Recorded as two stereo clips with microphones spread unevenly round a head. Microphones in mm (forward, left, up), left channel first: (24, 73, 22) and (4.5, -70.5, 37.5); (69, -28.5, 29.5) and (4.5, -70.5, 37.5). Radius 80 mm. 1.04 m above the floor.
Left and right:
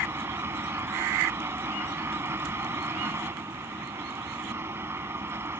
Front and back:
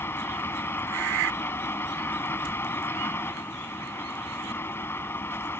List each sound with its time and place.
0.0 s a fan: 25° right